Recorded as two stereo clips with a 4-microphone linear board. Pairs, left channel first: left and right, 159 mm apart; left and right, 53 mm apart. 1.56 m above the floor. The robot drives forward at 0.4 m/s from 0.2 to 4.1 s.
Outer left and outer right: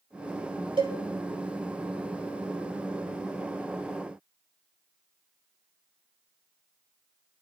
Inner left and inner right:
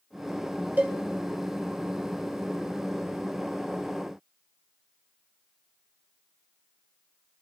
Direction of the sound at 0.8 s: 35° right (ahead or behind).